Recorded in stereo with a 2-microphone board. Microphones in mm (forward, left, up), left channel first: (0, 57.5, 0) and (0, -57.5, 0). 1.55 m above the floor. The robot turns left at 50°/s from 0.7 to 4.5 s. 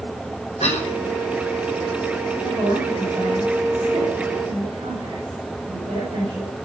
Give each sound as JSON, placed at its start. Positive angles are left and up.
{"t": 0.6, "sound": "a cough", "side_deg": 70, "distance_m": 6.0}
{"t": 2.4, "sound": "a woman speaking", "side_deg": -10, "distance_m": 9.0}